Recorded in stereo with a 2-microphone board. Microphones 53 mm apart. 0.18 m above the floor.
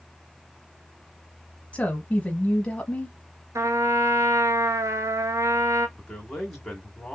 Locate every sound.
1.7 s a woman speaking: 25° left (ahead or behind), 1.1 m
3.5 s a trumpet: 75° right (ahead or behind), 0.8 m
6.0 s a man speaking: 5° left (ahead or behind), 1.6 m